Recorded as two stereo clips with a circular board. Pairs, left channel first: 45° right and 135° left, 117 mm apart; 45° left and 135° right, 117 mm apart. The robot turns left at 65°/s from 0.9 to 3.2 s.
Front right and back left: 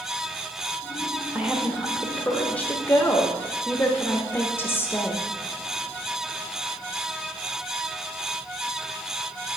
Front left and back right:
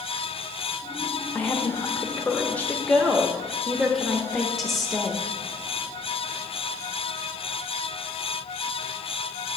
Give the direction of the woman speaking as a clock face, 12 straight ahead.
9 o'clock.